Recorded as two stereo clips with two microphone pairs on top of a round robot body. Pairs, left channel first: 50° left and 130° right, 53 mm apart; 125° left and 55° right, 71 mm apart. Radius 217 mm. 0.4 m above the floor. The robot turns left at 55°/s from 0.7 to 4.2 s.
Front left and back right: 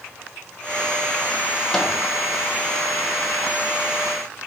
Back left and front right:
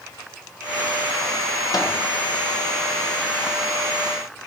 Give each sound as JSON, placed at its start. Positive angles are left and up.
{"t": 1.7, "sound": "a microwave", "azimuth_deg": 125, "distance_m": 1.0}